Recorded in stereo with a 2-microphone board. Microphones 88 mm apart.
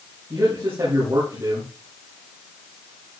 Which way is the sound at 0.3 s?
45° right (ahead or behind).